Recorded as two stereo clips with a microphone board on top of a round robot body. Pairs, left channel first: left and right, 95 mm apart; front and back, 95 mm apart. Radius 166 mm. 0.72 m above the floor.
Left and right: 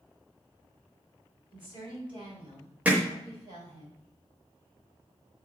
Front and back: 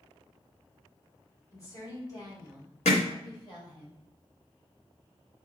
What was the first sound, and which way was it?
A woman speaking, 55° right.